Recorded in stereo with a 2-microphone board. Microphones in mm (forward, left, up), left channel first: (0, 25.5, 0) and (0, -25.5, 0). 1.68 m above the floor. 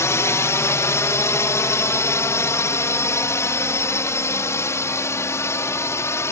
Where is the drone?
70° left (ahead or behind); by 6.3 s 65° left (ahead or behind).